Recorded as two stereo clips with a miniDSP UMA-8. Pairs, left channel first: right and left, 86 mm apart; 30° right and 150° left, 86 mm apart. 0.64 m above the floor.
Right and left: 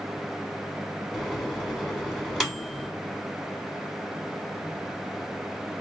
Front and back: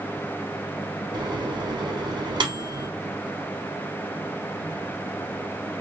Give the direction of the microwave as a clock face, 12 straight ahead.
6 o'clock.